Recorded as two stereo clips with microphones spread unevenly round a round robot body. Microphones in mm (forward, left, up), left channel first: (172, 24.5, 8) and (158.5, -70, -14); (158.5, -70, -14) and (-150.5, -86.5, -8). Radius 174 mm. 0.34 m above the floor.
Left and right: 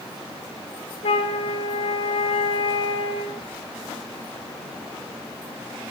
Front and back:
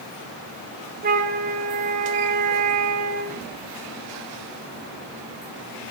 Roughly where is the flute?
Behind left.